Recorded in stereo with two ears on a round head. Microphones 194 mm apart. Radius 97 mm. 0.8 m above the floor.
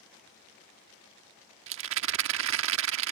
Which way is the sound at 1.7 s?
65° right (ahead or behind).